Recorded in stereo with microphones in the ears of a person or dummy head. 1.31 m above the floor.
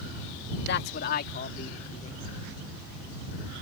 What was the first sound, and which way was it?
A man speaking, 55° left (ahead or behind).